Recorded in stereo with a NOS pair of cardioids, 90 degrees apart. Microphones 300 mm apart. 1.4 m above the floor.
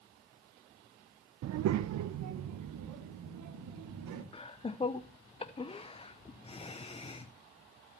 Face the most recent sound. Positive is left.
turn(degrees=20)